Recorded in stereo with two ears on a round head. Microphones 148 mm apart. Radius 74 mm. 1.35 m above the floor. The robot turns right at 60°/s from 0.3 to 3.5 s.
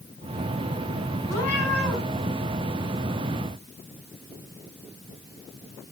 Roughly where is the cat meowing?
Behind.